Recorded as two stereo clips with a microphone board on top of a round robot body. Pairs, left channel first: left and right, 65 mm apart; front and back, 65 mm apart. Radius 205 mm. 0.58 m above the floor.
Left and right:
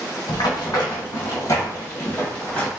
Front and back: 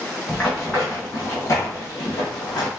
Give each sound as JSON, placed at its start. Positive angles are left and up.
{"t": 0.3, "sound": "running footsteps", "azimuth_deg": 80, "distance_m": 1.5}